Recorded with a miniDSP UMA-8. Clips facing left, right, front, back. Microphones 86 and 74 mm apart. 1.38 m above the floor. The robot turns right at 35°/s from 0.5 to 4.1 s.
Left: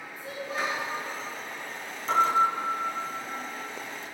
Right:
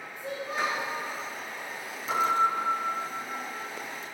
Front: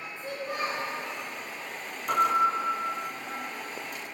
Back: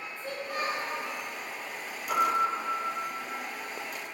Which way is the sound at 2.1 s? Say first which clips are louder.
Left 2 dB, front 3 dB; 25° left.